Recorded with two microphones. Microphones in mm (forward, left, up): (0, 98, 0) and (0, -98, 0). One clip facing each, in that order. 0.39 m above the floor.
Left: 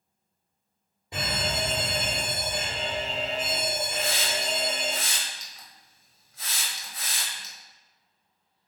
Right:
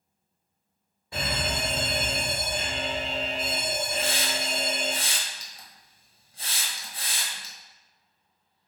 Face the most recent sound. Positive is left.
turn(degrees=-30)  # may be behind; listen again after turning